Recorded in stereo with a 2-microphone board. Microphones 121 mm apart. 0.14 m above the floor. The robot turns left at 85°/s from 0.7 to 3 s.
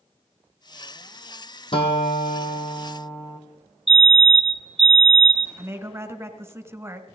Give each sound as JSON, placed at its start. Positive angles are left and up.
{"t": 1.7, "sound": "a guitar", "azimuth_deg": 130, "distance_m": 2.0}
{"t": 3.9, "sound": "a fire alarm", "side_deg": 0, "distance_m": 2.0}
{"t": 5.6, "sound": "a woman speaking", "side_deg": -20, "distance_m": 1.3}